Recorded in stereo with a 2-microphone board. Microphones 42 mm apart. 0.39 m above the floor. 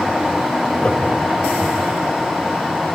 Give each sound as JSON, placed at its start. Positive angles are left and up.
{"t": 0.8, "sound": "laughter", "side_deg": 30, "distance_m": 1.7}